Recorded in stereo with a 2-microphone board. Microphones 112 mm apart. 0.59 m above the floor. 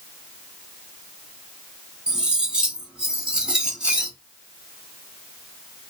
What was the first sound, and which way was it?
Cutlery clinking, 10° right (ahead or behind).